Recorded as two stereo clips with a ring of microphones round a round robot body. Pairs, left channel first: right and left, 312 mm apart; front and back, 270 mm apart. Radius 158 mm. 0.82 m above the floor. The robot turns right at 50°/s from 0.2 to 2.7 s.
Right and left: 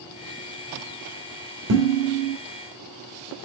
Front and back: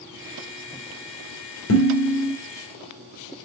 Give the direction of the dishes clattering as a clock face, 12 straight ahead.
11 o'clock.